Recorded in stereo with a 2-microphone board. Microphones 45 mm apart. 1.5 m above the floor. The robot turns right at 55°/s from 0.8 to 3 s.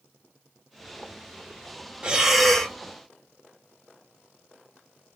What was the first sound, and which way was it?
Breathing, 20° right.